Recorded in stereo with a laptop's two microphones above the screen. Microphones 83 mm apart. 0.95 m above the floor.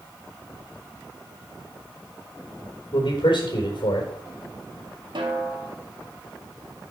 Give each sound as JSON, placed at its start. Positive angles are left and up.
{"t": 2.9, "sound": "a man speaking", "side_deg": 75, "distance_m": 3.5}
{"t": 5.2, "sound": "a snare drum", "side_deg": -75, "distance_m": 1.8}